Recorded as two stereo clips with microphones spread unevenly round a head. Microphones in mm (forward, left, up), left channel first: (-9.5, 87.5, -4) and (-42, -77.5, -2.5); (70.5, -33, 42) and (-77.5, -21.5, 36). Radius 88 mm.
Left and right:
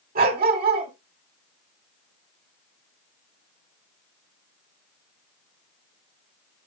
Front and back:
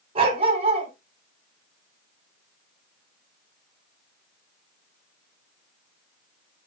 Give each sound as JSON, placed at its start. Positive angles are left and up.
{"t": 0.1, "sound": "a dog barking", "azimuth_deg": -135, "distance_m": 3.0}